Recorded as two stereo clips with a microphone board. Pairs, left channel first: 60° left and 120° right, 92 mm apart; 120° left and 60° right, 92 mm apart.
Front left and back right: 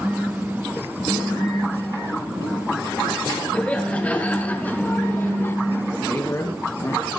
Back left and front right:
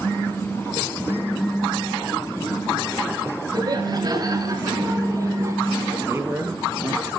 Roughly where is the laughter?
Ahead.